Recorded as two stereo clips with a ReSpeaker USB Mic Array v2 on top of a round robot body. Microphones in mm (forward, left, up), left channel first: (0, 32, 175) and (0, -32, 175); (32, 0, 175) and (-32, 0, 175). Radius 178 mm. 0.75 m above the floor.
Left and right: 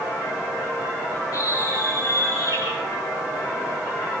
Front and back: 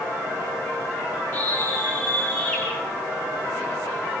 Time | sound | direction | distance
1.3 | a scream | 55° left | 10 m